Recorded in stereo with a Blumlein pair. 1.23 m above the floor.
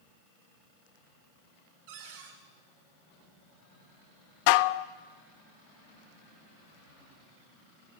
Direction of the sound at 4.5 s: 45° left.